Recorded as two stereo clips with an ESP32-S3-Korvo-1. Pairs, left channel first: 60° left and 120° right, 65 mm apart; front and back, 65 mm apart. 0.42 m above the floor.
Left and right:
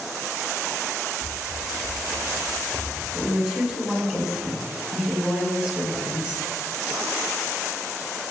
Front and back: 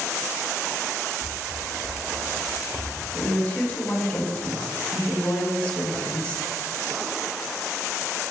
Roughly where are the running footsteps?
Ahead left.